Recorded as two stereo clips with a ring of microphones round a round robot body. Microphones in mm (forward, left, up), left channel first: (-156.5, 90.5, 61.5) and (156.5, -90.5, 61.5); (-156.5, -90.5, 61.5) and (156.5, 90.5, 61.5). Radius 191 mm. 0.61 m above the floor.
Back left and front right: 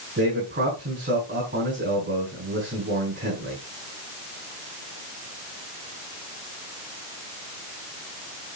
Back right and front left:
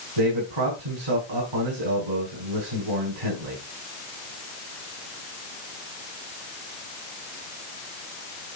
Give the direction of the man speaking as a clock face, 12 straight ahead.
11 o'clock.